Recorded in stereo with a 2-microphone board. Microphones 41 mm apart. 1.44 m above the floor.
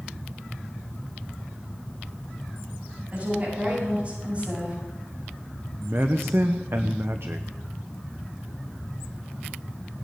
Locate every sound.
3.1 s a woman speaking: 35° right (ahead or behind), 8.5 m
5.8 s a man speaking: 65° right (ahead or behind), 0.9 m